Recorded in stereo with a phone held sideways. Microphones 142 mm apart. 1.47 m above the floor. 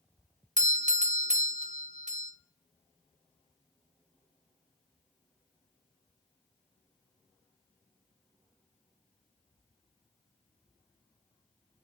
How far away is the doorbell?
About 0.7 m.